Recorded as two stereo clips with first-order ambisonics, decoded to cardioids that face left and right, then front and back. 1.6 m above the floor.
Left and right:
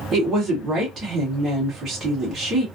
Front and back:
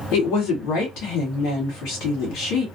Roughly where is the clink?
No clink in this recording.